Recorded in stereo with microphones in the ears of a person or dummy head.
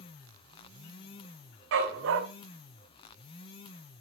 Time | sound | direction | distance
1.7 | a dog barking | 65° right (ahead or behind) | 3 m